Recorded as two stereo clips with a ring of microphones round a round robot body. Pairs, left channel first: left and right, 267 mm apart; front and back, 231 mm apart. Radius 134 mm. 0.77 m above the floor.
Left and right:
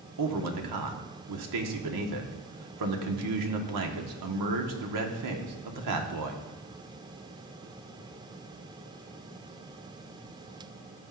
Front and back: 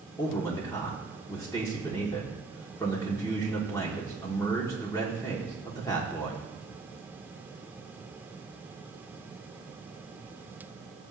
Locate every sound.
0.2 s a man speaking: 80° right, 1.3 m